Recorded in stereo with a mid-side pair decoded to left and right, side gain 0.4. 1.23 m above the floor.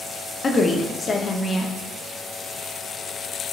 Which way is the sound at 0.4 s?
35° left.